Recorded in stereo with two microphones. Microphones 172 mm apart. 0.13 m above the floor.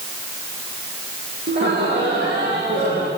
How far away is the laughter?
About 6 m.